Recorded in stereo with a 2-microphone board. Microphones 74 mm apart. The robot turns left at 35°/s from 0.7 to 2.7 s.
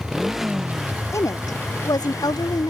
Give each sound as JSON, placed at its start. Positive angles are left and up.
{"t": 0.0, "sound": "a motorcycle", "azimuth_deg": -175}
{"t": 1.1, "sound": "a woman speaking", "azimuth_deg": 135}